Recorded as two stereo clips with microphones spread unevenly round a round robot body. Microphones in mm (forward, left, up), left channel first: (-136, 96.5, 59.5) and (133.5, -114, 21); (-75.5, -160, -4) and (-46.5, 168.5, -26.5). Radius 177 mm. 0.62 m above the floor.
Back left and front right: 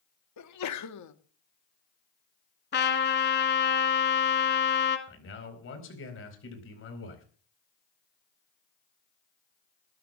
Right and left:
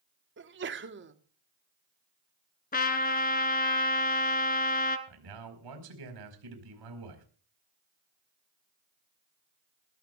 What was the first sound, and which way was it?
A sneeze, 120° left.